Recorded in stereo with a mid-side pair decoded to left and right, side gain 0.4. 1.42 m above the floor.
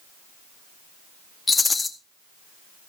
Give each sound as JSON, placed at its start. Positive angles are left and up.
{"t": 1.5, "sound": "a rattle", "azimuth_deg": 30, "distance_m": 1.7}